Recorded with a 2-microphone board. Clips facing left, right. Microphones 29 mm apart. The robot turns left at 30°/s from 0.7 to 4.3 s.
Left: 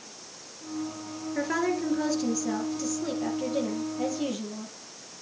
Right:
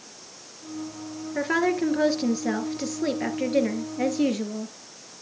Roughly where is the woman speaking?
Ahead.